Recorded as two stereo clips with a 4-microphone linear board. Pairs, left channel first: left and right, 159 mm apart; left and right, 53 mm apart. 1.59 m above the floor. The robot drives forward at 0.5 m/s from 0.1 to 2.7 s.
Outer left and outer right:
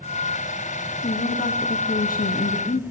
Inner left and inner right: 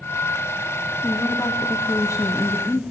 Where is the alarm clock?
I don't hear an alarm clock.